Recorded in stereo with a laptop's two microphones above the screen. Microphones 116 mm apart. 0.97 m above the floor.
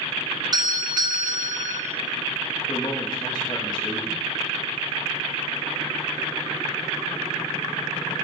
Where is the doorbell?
35° right (ahead or behind), 1.0 m.